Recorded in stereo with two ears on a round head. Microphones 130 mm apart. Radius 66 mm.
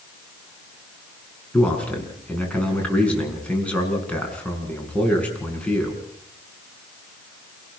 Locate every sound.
1.5 s a man speaking: 10° left (ahead or behind), 6 m